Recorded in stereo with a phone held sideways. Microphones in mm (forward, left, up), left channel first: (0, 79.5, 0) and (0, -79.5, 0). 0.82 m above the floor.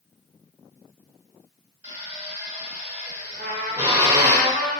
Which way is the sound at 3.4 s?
75° right (ahead or behind).